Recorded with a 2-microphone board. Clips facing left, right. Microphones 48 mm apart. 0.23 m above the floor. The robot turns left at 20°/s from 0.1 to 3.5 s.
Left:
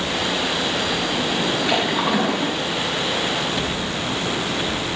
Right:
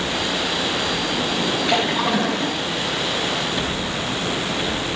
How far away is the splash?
About 3 m.